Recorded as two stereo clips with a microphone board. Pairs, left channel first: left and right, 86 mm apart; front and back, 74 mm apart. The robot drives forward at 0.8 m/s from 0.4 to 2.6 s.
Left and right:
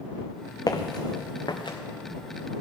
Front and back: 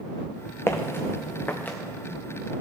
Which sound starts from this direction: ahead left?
Footsteps, at 0.7 s.